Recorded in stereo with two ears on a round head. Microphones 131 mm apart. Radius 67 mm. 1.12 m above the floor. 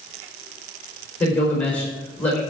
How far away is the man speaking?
About 4.5 m.